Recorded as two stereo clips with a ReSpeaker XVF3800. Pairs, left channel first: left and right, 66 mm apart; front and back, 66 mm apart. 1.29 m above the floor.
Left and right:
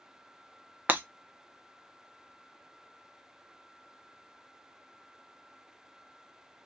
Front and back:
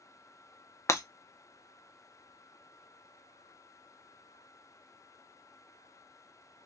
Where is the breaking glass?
30° right, 0.5 m.